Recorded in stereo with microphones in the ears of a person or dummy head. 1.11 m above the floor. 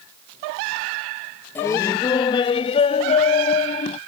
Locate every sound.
1.6 s laughter: 20° left (ahead or behind); by 4.0 s 45° left (ahead or behind)